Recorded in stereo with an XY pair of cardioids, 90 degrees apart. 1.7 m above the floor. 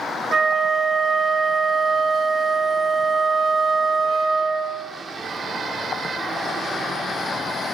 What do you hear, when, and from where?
0.3 s a flute: 45° right, 0.6 m